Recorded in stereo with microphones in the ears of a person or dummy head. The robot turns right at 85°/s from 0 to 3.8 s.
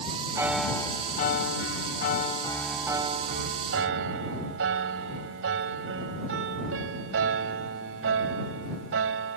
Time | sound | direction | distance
0.3 | a piano | 20° right | ?